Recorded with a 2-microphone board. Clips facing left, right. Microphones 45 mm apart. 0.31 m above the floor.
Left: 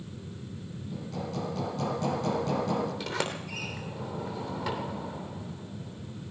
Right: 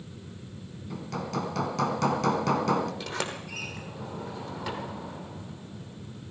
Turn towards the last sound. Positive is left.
turn(degrees=0)  # may be behind; listen again after turning